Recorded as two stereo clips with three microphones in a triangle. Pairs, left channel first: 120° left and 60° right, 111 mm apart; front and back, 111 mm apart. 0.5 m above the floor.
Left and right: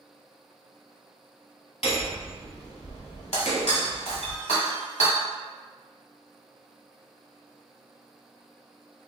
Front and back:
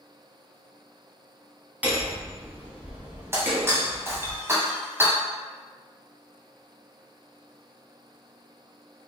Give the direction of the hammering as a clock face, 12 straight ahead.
9 o'clock.